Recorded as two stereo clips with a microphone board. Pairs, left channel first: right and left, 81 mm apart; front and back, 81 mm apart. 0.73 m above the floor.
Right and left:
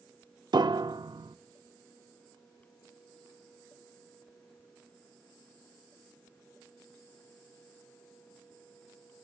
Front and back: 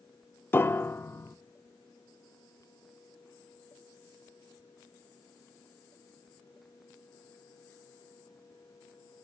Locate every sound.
0.5 s a piano: 60° left, 0.6 m